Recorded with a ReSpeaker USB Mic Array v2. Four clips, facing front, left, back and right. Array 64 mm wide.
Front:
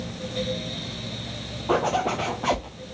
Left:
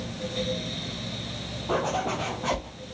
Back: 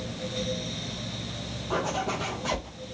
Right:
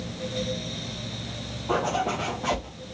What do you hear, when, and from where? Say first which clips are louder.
1.7 s a zipper: right 1 dB, front 6 dB; straight ahead, 4.5 m